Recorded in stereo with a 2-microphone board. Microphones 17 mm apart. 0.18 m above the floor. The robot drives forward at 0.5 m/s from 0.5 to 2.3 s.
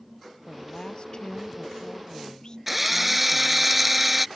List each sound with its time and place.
0.5 s a woman speaking: 45° left (ahead or behind); by 3.7 s 40° left (ahead or behind)
2.7 s a drill: 10° right (ahead or behind)